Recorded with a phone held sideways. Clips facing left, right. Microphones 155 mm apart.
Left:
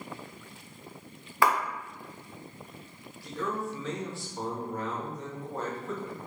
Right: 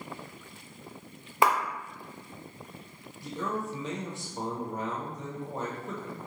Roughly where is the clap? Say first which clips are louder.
Right 1 dB; centre.